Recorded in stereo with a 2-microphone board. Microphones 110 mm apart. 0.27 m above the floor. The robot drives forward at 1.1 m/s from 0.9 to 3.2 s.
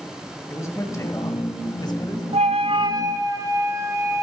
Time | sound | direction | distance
0.5 | a man speaking | 30° left (ahead or behind) | 2 m
2.3 | a flute | 70° right (ahead or behind) | 0.5 m